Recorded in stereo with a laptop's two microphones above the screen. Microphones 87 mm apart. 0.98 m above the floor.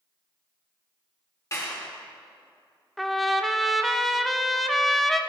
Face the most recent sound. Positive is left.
turn(degrees=0)  # may be behind; listen again after turning